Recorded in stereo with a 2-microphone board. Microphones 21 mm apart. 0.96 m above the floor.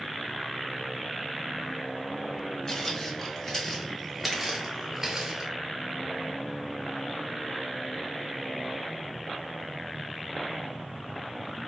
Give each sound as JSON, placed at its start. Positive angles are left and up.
{"t": 2.7, "sound": "footsteps", "side_deg": 30, "distance_m": 1.5}